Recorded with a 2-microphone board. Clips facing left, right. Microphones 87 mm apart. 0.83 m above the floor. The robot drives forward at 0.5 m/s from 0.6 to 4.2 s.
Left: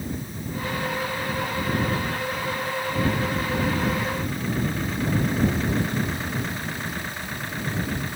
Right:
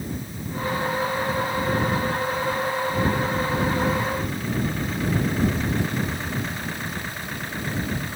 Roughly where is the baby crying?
I don't hear a baby crying.